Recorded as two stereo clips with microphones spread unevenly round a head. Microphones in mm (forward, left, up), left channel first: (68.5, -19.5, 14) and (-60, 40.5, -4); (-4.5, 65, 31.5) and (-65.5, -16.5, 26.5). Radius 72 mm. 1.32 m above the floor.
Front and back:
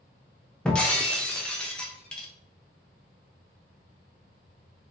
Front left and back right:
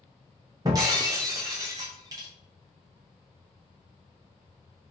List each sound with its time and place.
0.7 s breaking glass: 90° right, 0.5 m